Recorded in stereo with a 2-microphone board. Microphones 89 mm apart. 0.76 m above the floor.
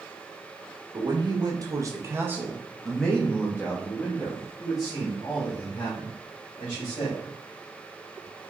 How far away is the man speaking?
About 1.4 m.